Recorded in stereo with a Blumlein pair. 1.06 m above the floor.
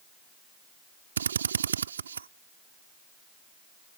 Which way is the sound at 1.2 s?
70° right.